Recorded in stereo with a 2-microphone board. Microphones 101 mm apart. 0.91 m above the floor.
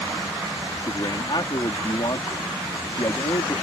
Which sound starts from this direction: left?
A man speaking, at 0.8 s.